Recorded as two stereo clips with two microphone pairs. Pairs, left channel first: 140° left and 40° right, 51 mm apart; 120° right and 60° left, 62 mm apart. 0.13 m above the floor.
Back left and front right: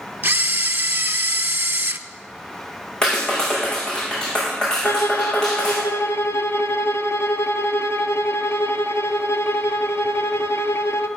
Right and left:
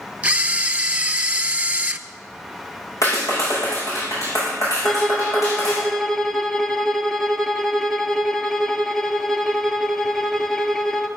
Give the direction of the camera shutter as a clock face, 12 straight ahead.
12 o'clock.